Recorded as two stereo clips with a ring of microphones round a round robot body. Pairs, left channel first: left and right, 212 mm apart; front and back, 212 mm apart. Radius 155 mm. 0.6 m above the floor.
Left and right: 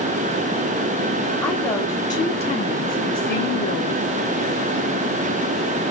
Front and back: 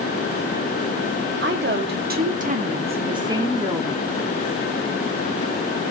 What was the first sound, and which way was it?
A woman speaking, 175° left.